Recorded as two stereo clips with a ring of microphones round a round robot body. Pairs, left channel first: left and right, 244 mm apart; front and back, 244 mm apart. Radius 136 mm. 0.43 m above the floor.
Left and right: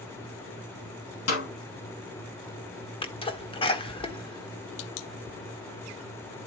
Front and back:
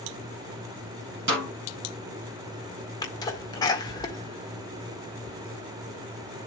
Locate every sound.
1.3 s a snare drum: 125° left, 3.5 m
3.0 s a sneeze: 55° left, 1.4 m